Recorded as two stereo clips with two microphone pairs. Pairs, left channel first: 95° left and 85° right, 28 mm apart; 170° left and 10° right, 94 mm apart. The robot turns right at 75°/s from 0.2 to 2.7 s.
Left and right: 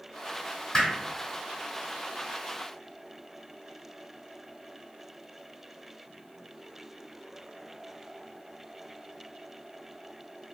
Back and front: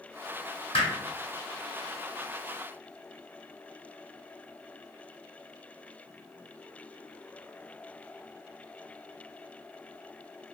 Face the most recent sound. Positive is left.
turn(degrees=-50)